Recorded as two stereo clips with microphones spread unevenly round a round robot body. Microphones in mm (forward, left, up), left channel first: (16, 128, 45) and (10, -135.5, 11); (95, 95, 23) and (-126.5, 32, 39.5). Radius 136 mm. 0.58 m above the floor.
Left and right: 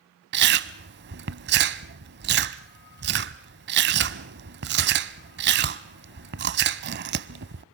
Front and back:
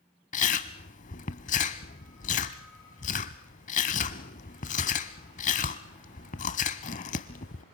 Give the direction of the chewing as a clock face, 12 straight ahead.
1 o'clock.